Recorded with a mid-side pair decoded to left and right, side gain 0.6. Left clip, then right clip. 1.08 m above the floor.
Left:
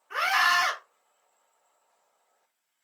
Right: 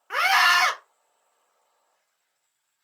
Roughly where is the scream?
Ahead right.